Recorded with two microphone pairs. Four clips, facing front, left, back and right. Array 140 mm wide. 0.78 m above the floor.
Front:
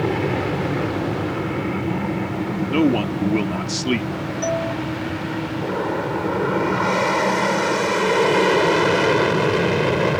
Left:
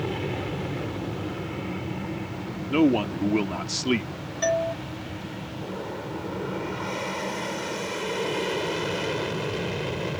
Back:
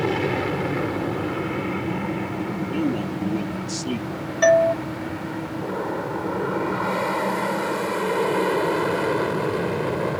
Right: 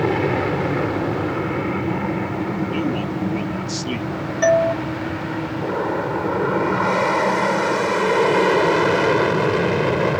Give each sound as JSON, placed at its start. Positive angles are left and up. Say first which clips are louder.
{"t": 0.0, "sound": "an aircraft", "louder": "right 10 dB, front 1 dB", "azimuth_deg": -95}
{"t": 2.7, "sound": "a man speaking", "louder": "left 1 dB, front 8 dB", "azimuth_deg": 35}
{"t": 4.4, "sound": "a doorbell", "louder": "right 9 dB, back 9 dB", "azimuth_deg": -135}